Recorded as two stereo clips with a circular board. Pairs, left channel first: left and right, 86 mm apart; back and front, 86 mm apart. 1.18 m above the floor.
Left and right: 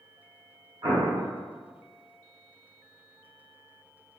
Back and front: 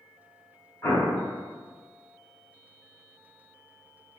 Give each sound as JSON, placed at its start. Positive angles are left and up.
{"t": 0.8, "sound": "an explosion", "azimuth_deg": -130, "distance_m": 1.3}